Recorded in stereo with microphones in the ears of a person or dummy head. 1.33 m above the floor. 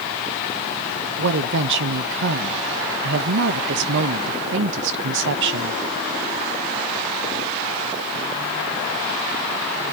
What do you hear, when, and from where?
1.2 s a woman speaking: 65° right (ahead or behind), 1.0 m